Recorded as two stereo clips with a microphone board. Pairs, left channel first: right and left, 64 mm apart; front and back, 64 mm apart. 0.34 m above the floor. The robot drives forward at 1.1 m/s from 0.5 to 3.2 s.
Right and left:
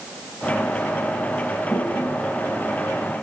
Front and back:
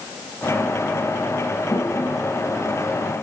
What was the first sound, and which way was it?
A toilet flushing, 25° right.